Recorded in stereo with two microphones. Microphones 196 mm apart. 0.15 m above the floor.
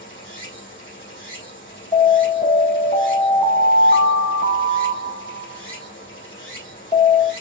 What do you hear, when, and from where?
0.0 s running water: 75° left (ahead or behind), 4.5 m
1.9 s an alarm: 40° left (ahead or behind), 3.5 m